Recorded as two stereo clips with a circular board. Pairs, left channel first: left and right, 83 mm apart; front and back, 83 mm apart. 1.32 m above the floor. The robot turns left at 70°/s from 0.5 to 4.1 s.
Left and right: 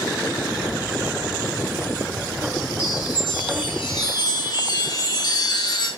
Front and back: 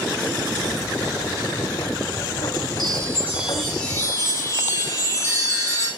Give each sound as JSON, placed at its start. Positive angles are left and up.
{"t": 2.8, "sound": "a chime", "azimuth_deg": 145, "distance_m": 4.0}